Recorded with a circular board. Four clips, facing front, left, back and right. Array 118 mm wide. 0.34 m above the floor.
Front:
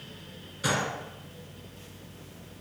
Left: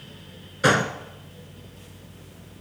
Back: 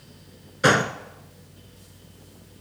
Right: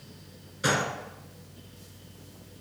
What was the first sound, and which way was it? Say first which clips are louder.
A gunshot: left 7 dB, back 9 dB; 145° left.